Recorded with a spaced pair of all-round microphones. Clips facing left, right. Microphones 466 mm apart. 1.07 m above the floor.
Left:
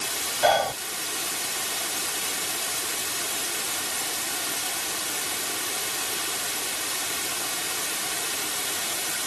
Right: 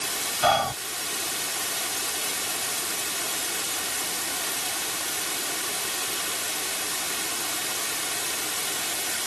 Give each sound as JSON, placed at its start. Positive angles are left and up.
{"t": 0.4, "sound": "whispering", "side_deg": -25}